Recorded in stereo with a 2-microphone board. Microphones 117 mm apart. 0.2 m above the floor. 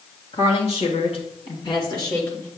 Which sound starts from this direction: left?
A woman speaking, at 0.3 s.